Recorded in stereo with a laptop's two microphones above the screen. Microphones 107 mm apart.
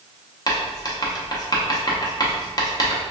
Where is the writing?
35° left (ahead or behind), 0.5 m.